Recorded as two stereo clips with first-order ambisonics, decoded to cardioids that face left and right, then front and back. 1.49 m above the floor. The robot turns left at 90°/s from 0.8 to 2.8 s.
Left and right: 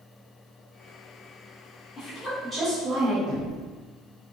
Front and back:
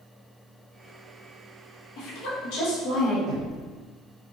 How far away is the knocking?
About 0.6 m.